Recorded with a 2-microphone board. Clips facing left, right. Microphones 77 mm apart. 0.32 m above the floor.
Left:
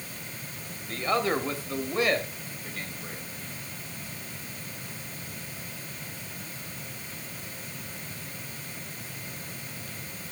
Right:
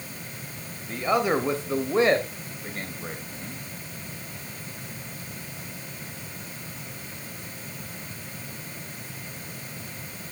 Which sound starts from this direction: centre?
A man speaking, at 0.9 s.